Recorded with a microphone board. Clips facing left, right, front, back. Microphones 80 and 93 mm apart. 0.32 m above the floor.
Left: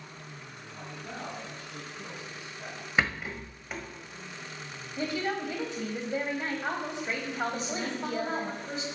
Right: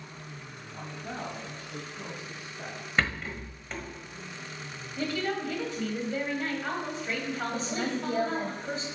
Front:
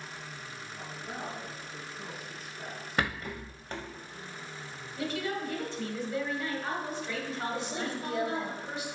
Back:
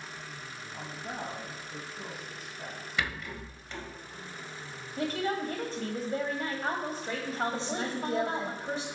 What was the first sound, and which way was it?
A man speaking, 155° right.